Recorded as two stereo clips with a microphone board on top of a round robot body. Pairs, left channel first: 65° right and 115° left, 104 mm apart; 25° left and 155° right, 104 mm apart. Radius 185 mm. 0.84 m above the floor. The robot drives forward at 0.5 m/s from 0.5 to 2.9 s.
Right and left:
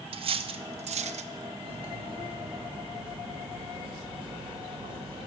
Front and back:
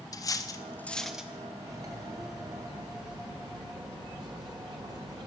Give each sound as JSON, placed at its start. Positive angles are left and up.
{"t": 0.1, "sound": "cutlery clinking", "azimuth_deg": 80, "distance_m": 0.5}
{"t": 1.6, "sound": "cutlery clinking", "azimuth_deg": 140, "distance_m": 1.5}